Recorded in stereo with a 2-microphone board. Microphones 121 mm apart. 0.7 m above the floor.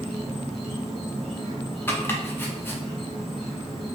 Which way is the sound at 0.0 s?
Centre (ahead or behind).